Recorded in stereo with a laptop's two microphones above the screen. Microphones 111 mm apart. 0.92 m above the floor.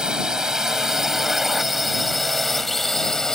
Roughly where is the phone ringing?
I don't hear a phone ringing.